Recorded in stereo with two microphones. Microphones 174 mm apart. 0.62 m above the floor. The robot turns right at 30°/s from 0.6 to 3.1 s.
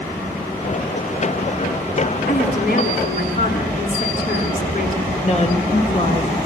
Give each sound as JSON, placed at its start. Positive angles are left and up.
{"t": 2.3, "sound": "a woman speaking", "side_deg": 75, "distance_m": 7.0}
{"t": 5.2, "sound": "a woman speaking", "side_deg": 40, "distance_m": 3.0}